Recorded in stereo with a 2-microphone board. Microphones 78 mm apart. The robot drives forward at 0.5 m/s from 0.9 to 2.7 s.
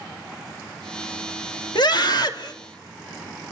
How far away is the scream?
About 2.5 m.